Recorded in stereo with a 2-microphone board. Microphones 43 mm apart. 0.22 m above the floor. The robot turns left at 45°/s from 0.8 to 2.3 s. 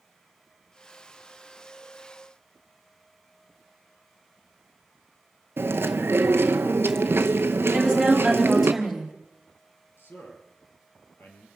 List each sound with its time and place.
5.6 s chewing: 60° right (ahead or behind), 0.8 m
7.7 s a woman speaking: 5° left (ahead or behind), 3.5 m
10.0 s a man speaking: 65° left (ahead or behind), 5 m